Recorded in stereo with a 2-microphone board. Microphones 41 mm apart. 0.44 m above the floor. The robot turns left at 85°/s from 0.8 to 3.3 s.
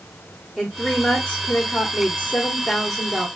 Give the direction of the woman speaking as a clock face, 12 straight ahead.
6 o'clock.